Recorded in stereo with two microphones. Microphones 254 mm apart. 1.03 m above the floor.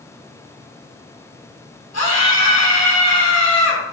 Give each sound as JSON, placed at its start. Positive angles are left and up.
{"t": 1.9, "sound": "a scream", "side_deg": 75, "distance_m": 4.0}